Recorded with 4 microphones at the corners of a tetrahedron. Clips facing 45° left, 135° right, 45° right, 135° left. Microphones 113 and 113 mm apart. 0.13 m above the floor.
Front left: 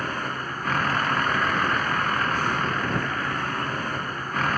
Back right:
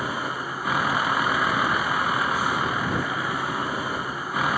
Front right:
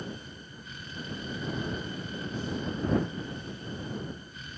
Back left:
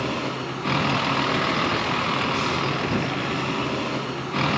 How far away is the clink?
No clink in this recording.